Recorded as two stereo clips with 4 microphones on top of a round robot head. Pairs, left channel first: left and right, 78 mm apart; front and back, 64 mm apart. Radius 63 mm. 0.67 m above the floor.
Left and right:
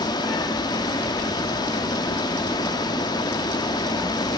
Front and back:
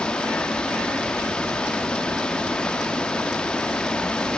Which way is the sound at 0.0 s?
75° left.